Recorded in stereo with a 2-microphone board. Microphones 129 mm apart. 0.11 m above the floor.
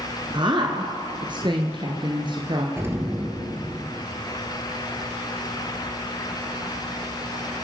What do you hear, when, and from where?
0.3 s a woman speaking: 40° right (ahead or behind), 1.6 m
2.8 s an explosion: 20° right (ahead or behind), 2 m